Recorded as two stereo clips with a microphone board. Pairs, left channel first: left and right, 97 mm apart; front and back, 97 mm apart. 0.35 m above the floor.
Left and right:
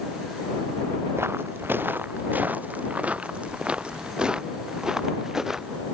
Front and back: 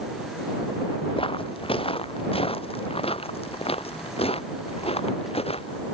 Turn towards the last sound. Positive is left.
turn(degrees=-5)